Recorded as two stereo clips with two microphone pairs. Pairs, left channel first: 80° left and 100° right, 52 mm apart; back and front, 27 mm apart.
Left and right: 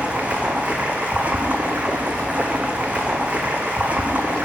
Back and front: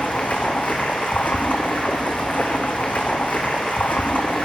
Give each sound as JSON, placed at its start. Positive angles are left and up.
{"t": 0.0, "sound": "running water", "azimuth_deg": -160, "distance_m": 0.9}